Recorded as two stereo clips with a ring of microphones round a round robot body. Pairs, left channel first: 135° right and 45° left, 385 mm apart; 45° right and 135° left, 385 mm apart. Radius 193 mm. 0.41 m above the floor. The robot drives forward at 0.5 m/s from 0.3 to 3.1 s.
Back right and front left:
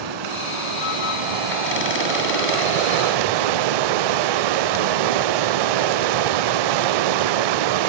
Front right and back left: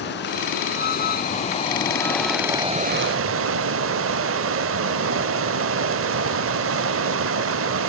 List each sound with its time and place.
0.0 s running water: 20° left, 1.6 m; by 7.9 s 75° left, 0.6 m